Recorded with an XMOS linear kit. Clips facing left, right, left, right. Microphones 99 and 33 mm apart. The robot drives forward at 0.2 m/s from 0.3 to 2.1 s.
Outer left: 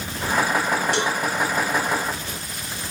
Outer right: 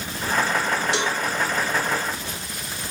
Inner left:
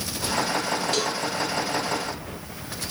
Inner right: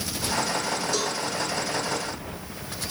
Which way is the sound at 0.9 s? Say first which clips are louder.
Outer left 1 dB, inner left 2 dB; 45° left (ahead or behind).